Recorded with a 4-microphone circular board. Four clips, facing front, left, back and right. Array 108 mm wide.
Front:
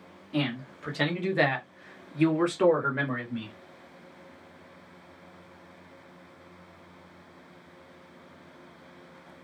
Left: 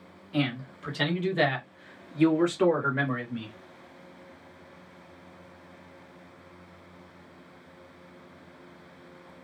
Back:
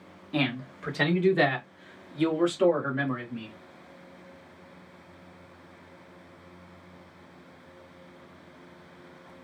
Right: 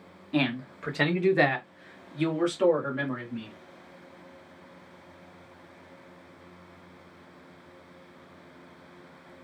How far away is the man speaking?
About 1.2 m.